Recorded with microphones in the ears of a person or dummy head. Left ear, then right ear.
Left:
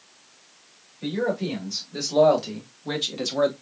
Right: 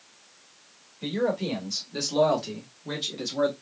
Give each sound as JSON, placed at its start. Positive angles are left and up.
{"t": 1.0, "sound": "a man speaking", "side_deg": -15, "distance_m": 2.5}